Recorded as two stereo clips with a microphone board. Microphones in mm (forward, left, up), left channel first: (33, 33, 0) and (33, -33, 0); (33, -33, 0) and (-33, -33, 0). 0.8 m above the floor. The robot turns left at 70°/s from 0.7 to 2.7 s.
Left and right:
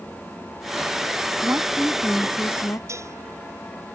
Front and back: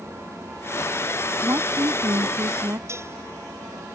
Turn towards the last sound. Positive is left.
turn(degrees=-135)